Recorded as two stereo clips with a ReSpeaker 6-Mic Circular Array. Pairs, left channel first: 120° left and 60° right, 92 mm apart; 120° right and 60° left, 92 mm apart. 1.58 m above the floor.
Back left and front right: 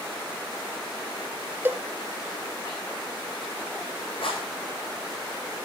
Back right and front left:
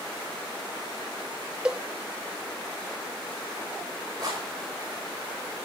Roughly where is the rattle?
Left.